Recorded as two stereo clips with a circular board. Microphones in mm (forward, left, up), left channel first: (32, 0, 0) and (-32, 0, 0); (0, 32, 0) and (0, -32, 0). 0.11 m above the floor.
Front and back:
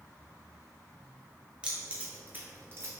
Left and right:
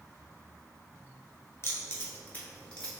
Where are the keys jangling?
110° left, 1.4 m; by 2.9 s 165° left, 1.4 m.